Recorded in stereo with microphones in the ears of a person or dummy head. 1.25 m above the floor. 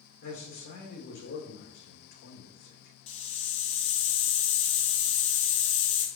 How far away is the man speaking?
About 2 m.